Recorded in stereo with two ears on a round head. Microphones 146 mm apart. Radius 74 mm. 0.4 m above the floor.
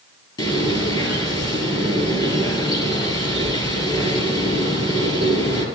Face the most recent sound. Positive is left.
turn(degrees=30)  # may be behind; listen again after turning